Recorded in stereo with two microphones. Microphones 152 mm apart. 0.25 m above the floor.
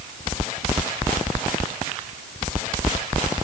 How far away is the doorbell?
I don't hear a doorbell.